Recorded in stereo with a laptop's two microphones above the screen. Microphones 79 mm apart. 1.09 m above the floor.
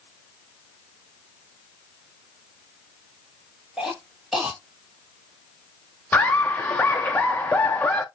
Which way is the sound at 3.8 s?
10° right (ahead or behind).